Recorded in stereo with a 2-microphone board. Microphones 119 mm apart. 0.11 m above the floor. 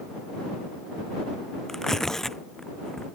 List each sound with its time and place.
1.7 s tearing paper: 5° left (ahead or behind)